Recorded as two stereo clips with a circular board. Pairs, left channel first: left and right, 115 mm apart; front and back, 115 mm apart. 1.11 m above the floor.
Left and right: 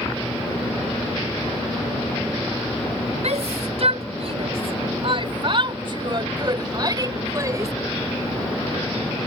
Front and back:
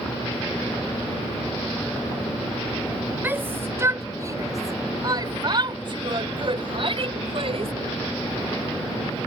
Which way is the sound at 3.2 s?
110° right.